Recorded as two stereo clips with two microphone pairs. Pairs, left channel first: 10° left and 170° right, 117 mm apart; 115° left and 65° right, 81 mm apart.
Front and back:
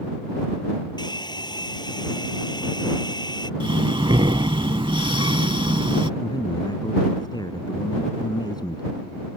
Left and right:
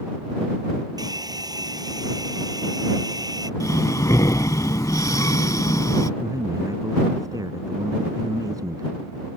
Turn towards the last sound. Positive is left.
turn(degrees=-35)